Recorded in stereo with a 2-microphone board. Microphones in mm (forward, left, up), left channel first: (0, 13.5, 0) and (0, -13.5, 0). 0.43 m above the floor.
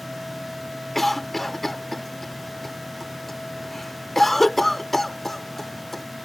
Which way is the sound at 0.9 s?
5° left (ahead or behind).